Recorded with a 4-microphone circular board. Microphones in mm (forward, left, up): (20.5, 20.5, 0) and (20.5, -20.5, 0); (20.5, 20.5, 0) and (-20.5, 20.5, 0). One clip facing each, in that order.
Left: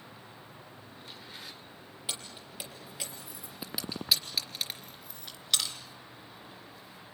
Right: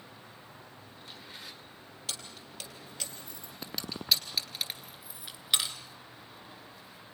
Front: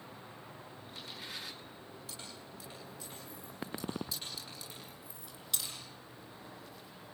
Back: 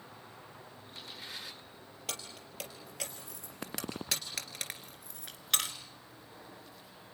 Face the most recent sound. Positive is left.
turn(degrees=-155)